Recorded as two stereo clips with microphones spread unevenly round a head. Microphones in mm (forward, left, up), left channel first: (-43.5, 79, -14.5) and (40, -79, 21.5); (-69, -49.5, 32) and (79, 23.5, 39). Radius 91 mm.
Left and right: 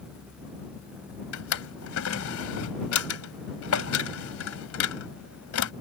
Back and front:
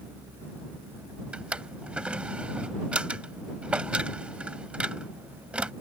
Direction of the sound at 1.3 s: 110° left.